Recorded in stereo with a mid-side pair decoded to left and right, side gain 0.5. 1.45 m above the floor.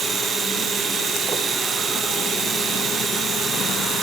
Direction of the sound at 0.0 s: 50° right.